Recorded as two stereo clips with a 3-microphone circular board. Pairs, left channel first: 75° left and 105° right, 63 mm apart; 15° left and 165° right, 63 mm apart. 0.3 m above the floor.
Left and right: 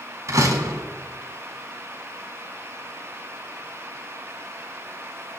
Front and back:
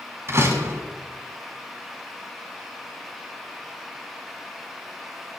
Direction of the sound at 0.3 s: 130° right.